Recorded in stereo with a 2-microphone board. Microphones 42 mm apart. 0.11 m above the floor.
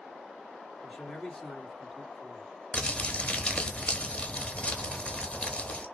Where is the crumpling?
25° left (ahead or behind), 0.6 m.